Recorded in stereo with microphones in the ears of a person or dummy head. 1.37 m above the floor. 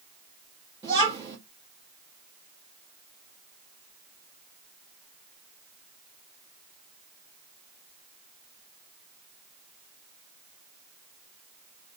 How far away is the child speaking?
About 1.2 m.